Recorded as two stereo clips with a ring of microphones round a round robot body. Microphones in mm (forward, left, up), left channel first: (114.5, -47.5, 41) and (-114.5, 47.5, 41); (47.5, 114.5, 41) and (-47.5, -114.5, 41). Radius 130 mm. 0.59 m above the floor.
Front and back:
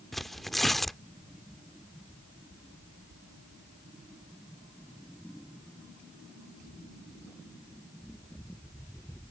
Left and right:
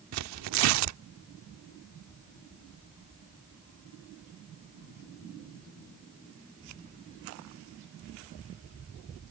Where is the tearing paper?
110° right.